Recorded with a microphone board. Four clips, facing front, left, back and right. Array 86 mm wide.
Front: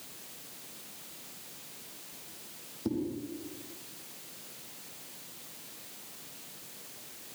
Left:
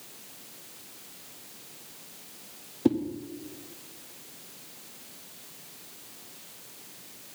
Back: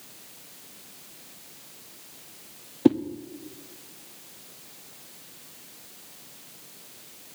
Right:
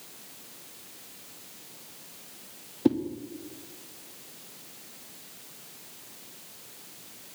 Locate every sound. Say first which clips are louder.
2.9 s a whoosh: even, back 15 dB; 175° right, 0.5 m